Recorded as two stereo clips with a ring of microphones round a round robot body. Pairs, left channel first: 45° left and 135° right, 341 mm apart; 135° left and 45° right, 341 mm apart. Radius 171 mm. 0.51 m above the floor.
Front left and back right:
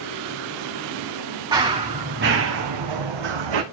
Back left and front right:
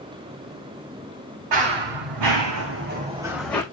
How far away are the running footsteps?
About 2.5 m.